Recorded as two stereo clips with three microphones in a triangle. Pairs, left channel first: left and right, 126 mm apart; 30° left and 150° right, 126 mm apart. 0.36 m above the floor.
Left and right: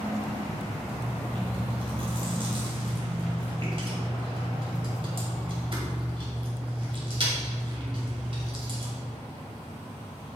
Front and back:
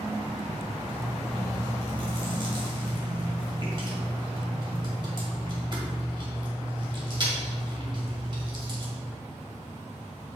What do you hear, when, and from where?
0.9 s chewing: 115° right, 1.9 m